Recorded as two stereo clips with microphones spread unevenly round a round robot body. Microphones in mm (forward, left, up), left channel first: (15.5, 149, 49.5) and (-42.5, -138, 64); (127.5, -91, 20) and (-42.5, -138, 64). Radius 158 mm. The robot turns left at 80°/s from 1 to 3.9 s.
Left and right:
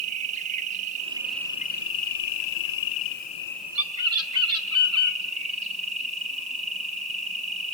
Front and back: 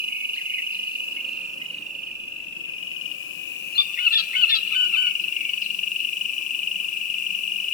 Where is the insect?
165° right, 0.9 m; by 7.7 s 35° right, 0.9 m.